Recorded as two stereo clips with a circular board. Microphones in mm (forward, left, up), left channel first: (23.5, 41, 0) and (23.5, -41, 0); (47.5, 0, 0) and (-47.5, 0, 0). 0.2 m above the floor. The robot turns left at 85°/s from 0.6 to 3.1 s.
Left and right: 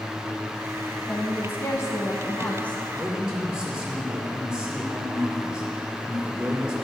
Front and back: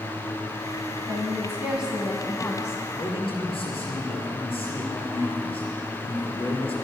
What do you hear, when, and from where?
1.1 s a woman speaking: 165° left, 1.3 m; by 2.8 s 15° left, 1.3 m
3.0 s a man speaking: 5° left, 5 m; by 6.8 s 10° right, 5 m